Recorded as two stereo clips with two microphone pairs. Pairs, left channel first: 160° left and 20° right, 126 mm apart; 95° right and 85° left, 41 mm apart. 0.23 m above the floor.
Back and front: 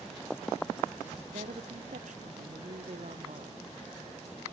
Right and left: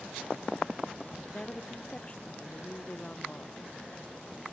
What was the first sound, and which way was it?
A woman speaking, 30° right.